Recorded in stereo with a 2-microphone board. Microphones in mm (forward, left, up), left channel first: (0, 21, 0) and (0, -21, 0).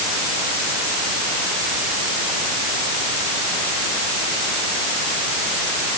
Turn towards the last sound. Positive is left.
No sound to turn to.